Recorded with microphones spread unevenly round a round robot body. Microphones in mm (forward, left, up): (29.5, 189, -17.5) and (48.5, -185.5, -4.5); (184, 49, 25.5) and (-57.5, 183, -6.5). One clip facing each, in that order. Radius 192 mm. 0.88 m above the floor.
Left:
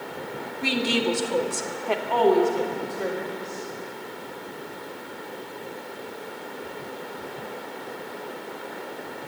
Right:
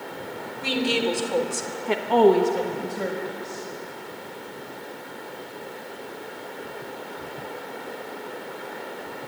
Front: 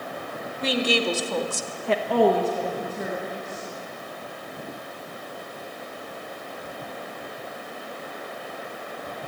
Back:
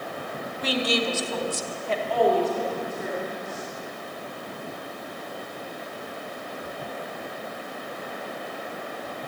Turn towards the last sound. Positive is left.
turn(degrees=-105)